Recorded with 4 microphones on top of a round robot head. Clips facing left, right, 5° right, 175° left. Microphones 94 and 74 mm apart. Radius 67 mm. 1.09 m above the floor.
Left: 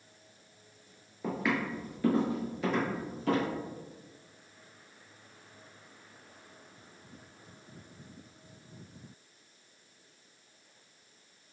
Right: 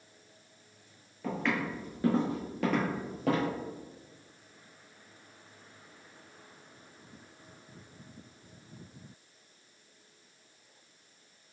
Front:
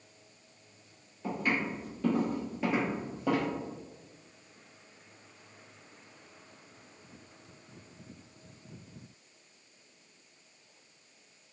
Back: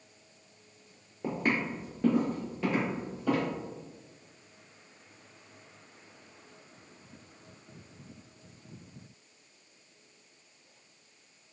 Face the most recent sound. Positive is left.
turn(degrees=-70)